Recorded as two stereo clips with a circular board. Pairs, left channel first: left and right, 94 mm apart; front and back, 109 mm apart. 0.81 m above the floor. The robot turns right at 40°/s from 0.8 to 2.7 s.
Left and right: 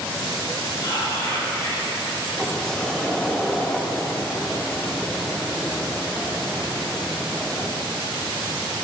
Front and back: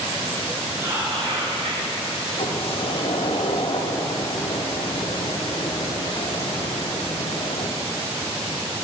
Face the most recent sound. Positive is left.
turn(degrees=10)